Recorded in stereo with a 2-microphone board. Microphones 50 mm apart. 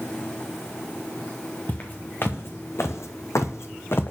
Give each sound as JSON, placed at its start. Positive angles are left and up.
{"t": 1.7, "sound": "footsteps", "side_deg": 40, "distance_m": 1.8}